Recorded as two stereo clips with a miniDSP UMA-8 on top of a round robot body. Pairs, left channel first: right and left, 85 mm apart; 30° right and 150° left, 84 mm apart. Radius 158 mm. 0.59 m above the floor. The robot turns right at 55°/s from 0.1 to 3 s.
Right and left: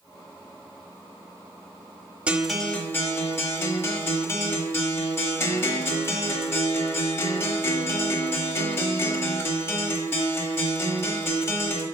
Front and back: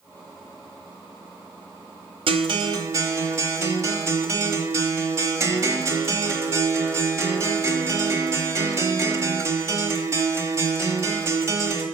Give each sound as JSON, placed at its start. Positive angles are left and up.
{"t": 2.3, "sound": "a guitar", "azimuth_deg": 165, "distance_m": 1.0}